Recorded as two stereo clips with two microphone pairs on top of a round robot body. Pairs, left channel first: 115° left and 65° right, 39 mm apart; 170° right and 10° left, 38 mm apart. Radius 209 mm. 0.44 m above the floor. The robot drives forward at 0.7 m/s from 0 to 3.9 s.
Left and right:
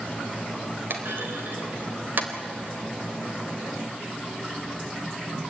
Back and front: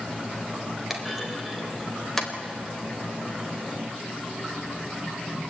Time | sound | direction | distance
0.9 | a clunk | 70° right | 3.5 m